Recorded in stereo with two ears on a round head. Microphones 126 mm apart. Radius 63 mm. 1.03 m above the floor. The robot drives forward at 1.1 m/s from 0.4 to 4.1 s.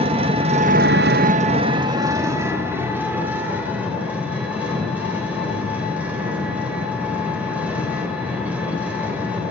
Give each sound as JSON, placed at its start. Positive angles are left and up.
{"t": 0.0, "sound": "an engine running", "side_deg": -40, "distance_m": 0.9}